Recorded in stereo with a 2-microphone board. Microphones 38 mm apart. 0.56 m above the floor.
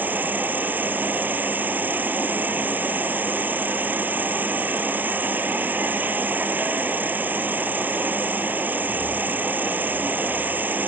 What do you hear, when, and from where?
0.0 s an insect: 55° right (ahead or behind)